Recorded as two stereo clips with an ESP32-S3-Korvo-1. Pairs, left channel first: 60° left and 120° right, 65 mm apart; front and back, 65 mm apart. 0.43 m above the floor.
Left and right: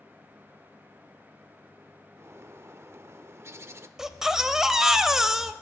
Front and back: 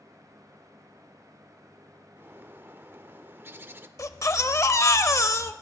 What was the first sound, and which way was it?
A bird, 140° right.